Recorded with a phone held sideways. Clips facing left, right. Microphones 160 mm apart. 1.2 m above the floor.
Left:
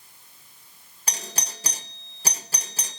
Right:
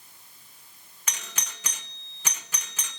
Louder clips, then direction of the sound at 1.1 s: Left 5 dB; 35° left (ahead or behind).